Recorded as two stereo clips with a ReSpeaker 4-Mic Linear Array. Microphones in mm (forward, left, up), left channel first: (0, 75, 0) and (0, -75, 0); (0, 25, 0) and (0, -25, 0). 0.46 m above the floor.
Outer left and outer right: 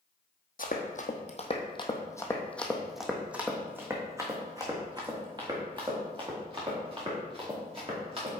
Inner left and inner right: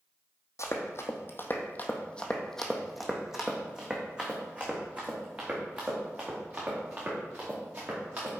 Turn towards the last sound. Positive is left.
turn(degrees=-40)  # may be behind; listen again after turning